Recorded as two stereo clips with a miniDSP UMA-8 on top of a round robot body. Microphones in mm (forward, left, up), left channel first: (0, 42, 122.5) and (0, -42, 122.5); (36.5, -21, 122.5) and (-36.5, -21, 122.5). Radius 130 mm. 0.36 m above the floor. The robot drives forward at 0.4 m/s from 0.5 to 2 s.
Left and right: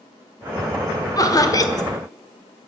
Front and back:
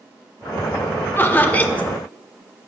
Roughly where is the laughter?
Ahead left.